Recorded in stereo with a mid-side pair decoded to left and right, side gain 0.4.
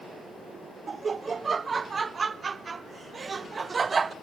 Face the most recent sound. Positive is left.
turn(degrees=-40)